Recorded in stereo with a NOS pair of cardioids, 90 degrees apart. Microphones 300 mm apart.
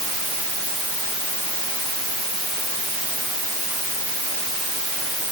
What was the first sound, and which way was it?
Only background noise.